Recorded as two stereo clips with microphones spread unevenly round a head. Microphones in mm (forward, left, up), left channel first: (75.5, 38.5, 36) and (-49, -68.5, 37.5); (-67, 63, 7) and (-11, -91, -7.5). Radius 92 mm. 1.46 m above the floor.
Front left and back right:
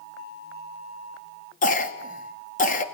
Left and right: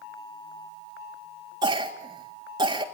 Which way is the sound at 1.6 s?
Straight ahead.